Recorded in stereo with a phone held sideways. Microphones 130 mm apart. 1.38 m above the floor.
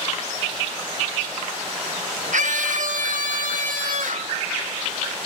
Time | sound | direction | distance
2.3 | a scream | 70° right (ahead or behind) | ?